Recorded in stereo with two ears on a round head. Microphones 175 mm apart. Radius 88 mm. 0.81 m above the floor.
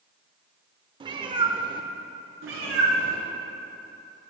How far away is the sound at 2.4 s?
About 1.9 m.